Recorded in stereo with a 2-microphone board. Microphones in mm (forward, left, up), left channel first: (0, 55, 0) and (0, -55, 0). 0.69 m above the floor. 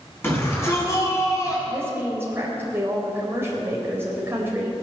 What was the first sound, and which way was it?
A shout, 20° left (ahead or behind).